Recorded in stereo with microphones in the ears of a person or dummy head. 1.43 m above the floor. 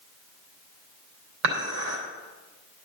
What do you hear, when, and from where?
1.4 s dishes clattering: 80° right, 3 m